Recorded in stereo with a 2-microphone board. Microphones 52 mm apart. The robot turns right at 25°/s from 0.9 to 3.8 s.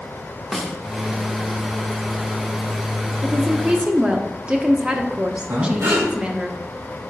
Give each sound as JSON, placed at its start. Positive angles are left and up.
{"t": 0.5, "sound": "a snare drum", "side_deg": 5, "distance_m": 1.1}
{"t": 3.2, "sound": "a woman speaking", "side_deg": -20, "distance_m": 0.8}
{"t": 5.5, "sound": "breathing", "side_deg": -75, "distance_m": 4.0}